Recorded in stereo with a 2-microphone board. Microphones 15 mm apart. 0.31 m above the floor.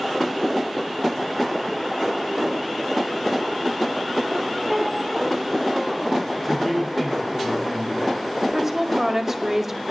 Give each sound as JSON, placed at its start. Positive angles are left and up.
{"t": 4.7, "sound": "a squeak", "side_deg": -5, "distance_m": 1.1}
{"t": 6.4, "sound": "a man speaking", "side_deg": 10, "distance_m": 7.0}
{"t": 8.4, "sound": "a woman speaking", "side_deg": -25, "distance_m": 1.4}